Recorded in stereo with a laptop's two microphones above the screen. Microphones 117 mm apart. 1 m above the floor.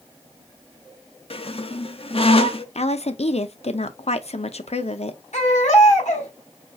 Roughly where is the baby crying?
Left.